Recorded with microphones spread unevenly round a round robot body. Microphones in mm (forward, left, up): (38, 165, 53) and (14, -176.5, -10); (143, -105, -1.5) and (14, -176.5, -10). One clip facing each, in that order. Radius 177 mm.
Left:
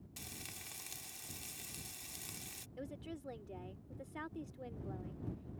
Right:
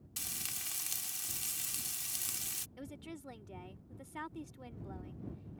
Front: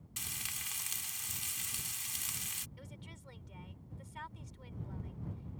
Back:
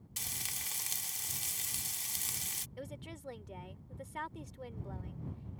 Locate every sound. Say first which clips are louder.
0.2 s frying: right 1 dB, back 2 dB; 115° right
2.8 s a woman speaking: even, back 11 dB; 150° right